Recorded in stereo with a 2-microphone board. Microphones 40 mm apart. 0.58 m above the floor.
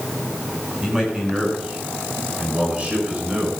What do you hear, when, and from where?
0.8 s a man speaking: 20° right (ahead or behind), 7 m; by 3.5 s 40° right (ahead or behind), 8 m